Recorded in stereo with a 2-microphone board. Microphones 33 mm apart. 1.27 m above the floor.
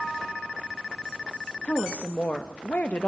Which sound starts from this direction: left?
A woman speaking, at 1.6 s.